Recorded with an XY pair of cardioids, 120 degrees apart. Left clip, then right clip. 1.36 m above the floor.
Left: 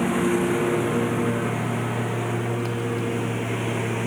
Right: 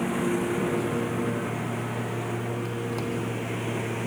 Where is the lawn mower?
30° left; by 4.1 s 25° left.